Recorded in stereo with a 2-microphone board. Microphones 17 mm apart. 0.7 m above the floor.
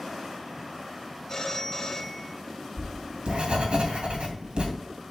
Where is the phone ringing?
30° left (ahead or behind), 1.8 m.